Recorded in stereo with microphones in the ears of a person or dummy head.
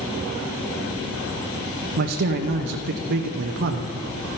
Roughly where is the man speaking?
Right.